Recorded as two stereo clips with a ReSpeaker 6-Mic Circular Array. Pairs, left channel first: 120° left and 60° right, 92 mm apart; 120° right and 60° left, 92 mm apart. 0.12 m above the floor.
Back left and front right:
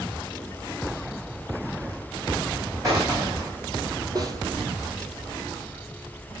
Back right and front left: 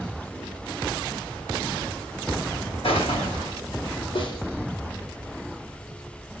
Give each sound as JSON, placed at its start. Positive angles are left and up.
{"t": 2.8, "sound": "a gunshot", "azimuth_deg": -110, "distance_m": 2.5}
{"t": 4.2, "sound": "a snare drum", "azimuth_deg": -105, "distance_m": 2.5}